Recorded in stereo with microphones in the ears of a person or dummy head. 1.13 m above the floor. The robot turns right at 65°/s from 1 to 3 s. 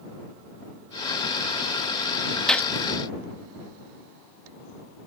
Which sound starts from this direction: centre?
A gunshot, at 2.5 s.